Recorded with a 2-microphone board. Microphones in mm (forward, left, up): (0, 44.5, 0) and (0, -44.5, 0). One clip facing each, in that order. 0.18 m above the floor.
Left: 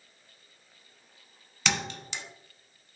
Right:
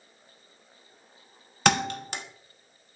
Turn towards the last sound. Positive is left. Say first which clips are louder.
# right 8 dB
turn(degrees=-55)  # may be behind; listen again after turning